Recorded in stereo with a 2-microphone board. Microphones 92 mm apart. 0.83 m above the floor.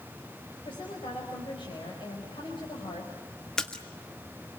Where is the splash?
10° left (ahead or behind), 1.6 m.